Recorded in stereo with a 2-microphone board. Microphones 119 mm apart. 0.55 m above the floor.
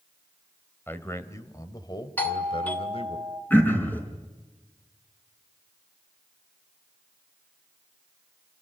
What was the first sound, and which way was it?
A man speaking, 20° left (ahead or behind).